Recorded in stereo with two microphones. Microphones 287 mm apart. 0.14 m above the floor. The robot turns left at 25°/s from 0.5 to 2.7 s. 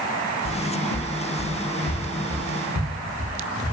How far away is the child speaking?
No child speaking in this recording.